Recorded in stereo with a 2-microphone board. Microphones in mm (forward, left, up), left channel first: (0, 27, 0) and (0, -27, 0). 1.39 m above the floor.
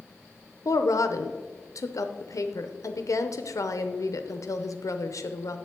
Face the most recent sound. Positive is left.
turn(degrees=80)